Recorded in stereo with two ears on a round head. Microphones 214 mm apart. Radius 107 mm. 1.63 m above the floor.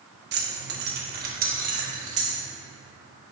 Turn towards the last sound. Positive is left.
turn(degrees=-30)  # may be behind; listen again after turning